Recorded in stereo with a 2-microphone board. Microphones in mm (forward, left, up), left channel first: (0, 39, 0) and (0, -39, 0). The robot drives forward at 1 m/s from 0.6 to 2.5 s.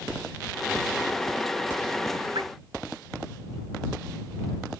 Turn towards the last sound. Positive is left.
turn(degrees=-70)  # may be behind; listen again after turning